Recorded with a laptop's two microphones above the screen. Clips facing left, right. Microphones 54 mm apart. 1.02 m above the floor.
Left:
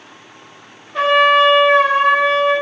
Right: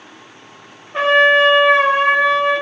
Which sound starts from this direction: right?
A trumpet, at 0.9 s.